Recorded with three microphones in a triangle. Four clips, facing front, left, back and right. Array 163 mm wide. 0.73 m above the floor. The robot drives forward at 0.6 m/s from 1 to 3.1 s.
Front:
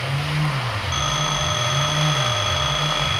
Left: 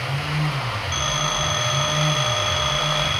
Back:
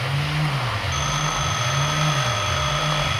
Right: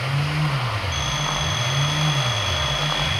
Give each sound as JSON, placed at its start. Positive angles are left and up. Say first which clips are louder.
{"t": 0.9, "sound": "a phone ringing", "louder": "left 1 dB, front 2 dB", "azimuth_deg": 15}